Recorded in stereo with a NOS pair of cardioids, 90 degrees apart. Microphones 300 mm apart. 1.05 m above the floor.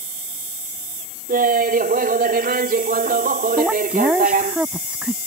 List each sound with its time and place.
1.3 s laughter: 30° right
3.6 s a woman speaking: 5° right